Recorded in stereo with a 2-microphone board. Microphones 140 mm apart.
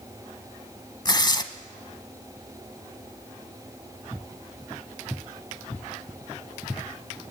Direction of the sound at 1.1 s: 30° left (ahead or behind).